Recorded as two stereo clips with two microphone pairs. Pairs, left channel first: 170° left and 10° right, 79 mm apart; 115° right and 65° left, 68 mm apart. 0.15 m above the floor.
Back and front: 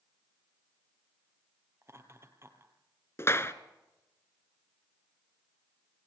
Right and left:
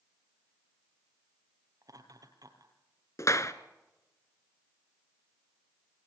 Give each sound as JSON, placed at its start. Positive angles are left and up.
{"t": 1.8, "sound": "laughter", "azimuth_deg": 45, "distance_m": 4.0}
{"t": 3.2, "sound": "a clap", "azimuth_deg": -140, "distance_m": 1.4}